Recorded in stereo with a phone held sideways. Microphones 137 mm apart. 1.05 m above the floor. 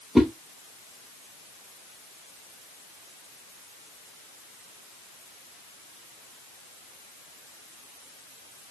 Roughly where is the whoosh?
Centre.